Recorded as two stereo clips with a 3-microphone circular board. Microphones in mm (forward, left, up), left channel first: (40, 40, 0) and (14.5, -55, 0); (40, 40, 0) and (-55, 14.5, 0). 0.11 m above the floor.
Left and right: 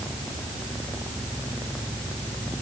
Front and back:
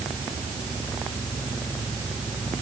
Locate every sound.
Only background noise.